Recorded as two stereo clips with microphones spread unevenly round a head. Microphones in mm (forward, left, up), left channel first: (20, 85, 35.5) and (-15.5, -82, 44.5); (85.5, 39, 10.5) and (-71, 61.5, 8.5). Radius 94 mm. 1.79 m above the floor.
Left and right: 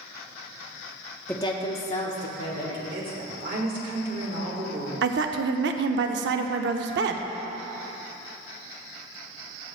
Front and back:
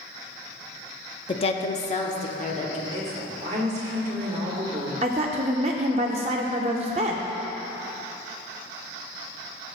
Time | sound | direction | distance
1.3 | a woman speaking | straight ahead | 0.5 m
2.9 | a woman speaking | 135° right | 1.7 m
5.0 | a woman speaking | 130° right | 0.5 m